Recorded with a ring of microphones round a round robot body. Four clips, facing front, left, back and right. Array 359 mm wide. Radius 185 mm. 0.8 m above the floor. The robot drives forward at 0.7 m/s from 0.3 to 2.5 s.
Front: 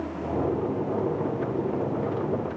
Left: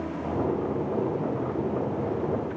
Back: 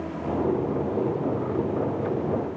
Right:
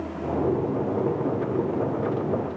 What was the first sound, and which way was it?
Only background noise.